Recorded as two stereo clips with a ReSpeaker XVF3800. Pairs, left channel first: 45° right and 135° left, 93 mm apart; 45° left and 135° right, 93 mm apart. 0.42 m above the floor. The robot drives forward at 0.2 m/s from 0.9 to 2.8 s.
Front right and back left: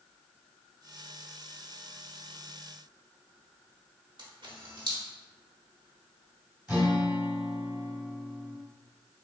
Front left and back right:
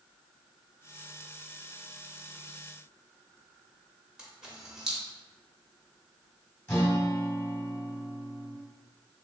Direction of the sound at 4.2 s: 145° left.